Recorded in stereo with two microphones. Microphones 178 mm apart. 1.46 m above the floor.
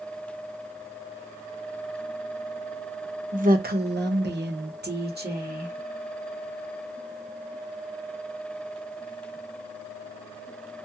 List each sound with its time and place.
3.3 s a woman speaking: 45° right (ahead or behind), 0.7 m; by 5.7 s 60° right (ahead or behind), 1.5 m